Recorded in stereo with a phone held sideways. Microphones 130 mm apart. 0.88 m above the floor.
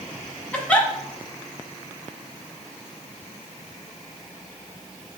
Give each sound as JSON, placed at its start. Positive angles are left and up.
{"t": 0.5, "sound": "a giggle", "side_deg": 10, "distance_m": 1.2}